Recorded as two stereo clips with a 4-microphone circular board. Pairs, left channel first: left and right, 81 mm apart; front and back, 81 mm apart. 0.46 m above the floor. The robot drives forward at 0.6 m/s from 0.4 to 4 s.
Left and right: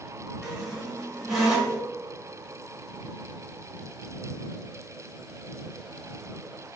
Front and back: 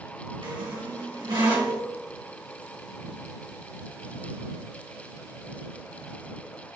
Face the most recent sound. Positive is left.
turn(degrees=-175)